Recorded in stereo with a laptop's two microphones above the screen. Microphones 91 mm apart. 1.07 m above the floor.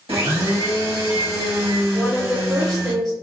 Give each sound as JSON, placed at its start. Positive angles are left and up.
{"t": 0.1, "sound": "a blender", "side_deg": -85, "distance_m": 1.1}
{"t": 1.9, "sound": "a woman speaking", "side_deg": -5, "distance_m": 0.7}